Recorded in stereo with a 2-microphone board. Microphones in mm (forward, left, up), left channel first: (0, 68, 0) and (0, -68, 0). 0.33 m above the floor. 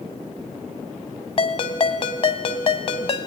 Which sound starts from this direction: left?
A ringtone, at 1.4 s.